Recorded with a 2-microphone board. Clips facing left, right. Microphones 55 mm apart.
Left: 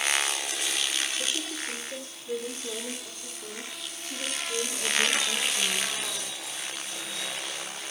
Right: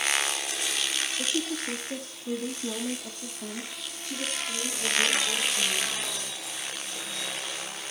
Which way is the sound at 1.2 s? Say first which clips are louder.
Right 3 dB; 60° right (ahead or behind).